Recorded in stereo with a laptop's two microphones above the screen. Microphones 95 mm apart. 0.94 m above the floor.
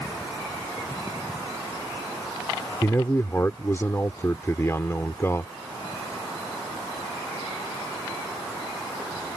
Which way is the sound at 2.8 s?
25° left (ahead or behind).